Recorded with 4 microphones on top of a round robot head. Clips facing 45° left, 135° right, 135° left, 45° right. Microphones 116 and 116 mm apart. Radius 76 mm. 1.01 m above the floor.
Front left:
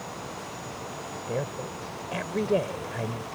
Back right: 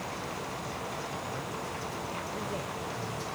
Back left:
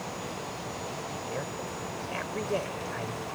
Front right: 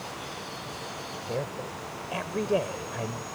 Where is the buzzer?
I don't hear a buzzer.